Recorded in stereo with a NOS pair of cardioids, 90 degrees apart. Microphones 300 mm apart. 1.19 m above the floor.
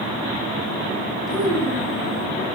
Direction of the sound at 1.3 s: Straight ahead.